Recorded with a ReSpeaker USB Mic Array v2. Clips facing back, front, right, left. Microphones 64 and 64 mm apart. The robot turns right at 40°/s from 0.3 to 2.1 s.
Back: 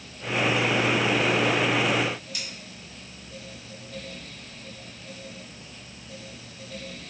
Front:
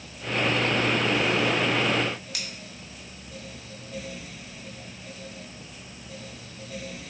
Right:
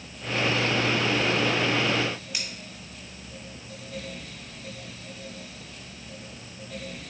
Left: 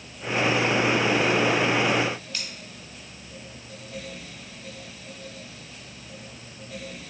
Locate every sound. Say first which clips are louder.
2.3 s scissors: front 1 dB, right 1 dB; 15° right, 0.7 m